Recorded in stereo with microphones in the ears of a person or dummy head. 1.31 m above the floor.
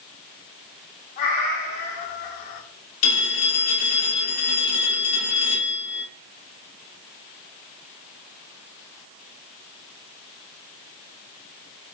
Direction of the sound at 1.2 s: 30° left (ahead or behind).